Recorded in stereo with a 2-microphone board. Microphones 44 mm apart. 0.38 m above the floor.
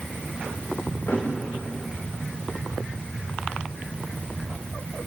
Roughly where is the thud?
Left.